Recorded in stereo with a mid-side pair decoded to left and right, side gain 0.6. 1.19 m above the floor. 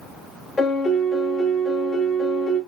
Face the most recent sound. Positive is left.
turn(degrees=25)